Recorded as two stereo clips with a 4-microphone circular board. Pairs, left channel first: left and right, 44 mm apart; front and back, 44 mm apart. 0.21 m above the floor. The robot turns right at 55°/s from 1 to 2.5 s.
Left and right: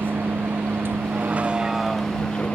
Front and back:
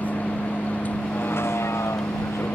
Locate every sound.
0.0 s a vehicle: 55° right; by 2.6 s 30° left